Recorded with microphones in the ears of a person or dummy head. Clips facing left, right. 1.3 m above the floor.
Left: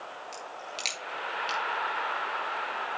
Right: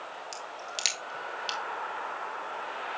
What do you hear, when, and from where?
0.3 s a crack: 10° right (ahead or behind), 2.0 m